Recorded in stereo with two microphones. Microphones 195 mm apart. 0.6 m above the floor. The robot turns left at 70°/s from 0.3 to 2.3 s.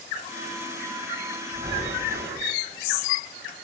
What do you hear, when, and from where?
1.5 s breathing: 10° right, 4 m; by 2.5 s 65° right, 4 m